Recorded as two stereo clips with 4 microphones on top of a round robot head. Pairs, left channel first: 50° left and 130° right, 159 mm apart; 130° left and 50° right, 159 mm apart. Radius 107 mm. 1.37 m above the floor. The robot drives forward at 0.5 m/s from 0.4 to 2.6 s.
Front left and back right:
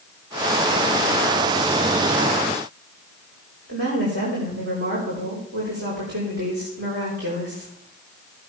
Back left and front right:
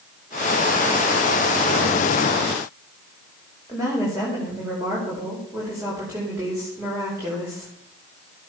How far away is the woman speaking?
About 4.5 m.